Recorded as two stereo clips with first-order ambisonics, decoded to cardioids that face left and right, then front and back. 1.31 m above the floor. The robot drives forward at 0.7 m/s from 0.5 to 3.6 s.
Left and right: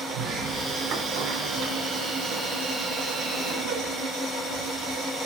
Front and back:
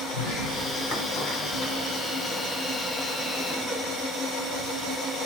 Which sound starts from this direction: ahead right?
A sliding door, at 0.1 s.